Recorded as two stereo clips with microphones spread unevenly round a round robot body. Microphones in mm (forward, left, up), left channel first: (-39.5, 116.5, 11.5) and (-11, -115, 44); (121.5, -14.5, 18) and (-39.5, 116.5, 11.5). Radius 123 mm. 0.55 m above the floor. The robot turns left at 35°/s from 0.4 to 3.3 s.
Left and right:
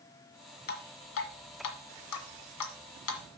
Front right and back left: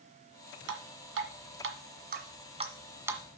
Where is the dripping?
145° left, 1.6 m; by 3.2 s 60° left, 1.6 m.